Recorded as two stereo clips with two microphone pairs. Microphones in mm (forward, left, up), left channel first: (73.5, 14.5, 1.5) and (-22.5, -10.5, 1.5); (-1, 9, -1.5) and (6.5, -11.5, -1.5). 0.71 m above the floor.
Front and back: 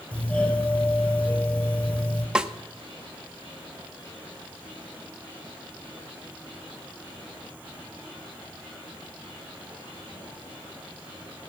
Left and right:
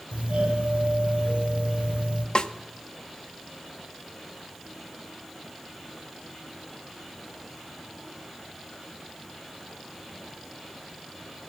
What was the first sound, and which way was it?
A doorbell, 60° right.